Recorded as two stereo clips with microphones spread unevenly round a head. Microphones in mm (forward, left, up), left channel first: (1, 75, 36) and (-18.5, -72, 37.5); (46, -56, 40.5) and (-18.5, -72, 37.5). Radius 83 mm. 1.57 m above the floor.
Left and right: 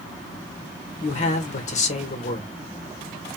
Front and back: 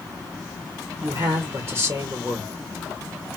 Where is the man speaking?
125° left, 1.2 m.